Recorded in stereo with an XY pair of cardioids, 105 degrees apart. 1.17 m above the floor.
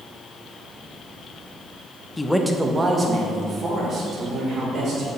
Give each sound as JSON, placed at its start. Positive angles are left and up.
{"t": 2.2, "sound": "a man speaking", "azimuth_deg": 20, "distance_m": 0.8}